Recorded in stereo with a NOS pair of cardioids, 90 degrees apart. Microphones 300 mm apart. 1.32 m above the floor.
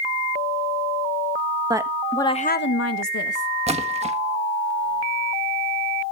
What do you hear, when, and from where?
1.7 s a woman speaking: 15° right, 1.6 m; by 3.5 s 70° left, 1.9 m
3.7 s a splash: 20° right, 1.4 m